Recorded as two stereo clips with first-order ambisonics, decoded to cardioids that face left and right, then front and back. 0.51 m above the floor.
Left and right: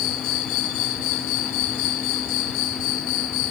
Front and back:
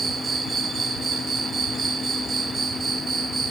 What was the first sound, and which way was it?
An insect, 110° left.